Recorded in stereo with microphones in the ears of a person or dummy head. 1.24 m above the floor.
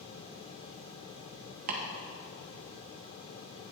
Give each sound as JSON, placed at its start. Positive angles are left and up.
{"t": 1.7, "sound": "chopping", "side_deg": -40, "distance_m": 0.9}